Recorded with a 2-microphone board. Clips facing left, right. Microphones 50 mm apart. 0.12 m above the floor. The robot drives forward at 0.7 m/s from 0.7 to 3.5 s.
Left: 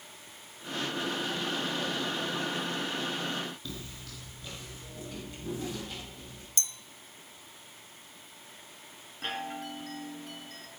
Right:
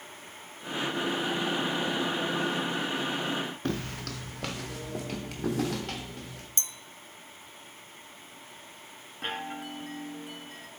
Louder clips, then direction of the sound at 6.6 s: Left 2 dB; 30° right (ahead or behind).